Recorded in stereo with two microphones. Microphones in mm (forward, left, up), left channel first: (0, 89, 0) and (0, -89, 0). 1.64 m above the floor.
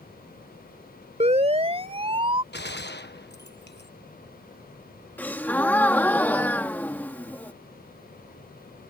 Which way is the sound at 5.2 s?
10° left (ahead or behind).